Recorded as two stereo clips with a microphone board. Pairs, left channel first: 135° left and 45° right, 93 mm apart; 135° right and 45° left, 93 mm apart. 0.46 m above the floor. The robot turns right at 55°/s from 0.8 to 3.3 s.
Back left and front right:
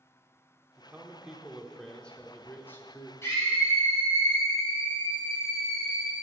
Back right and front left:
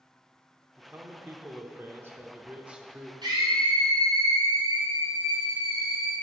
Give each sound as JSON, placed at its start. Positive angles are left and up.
{"t": 0.8, "sound": "a man speaking", "azimuth_deg": 0, "distance_m": 0.7}
{"t": 3.2, "sound": "a scream", "azimuth_deg": 75, "distance_m": 2.5}